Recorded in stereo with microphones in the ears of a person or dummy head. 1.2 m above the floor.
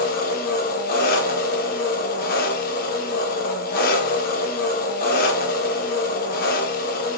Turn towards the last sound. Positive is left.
turn(degrees=55)  # may be behind; listen again after turning